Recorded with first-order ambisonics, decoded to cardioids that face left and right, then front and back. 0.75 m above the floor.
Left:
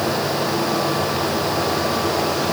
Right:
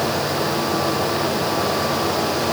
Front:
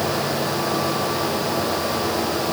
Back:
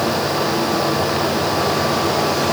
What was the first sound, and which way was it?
Only background noise.